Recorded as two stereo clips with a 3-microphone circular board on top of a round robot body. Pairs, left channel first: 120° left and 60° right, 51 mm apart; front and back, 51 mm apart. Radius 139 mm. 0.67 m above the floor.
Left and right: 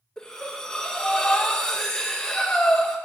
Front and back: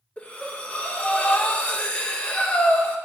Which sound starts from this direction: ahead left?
Breathing, at 0.2 s.